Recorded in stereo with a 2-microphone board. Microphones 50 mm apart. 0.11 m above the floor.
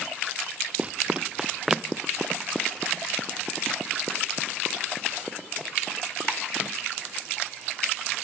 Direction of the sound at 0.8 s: 25° right (ahead or behind).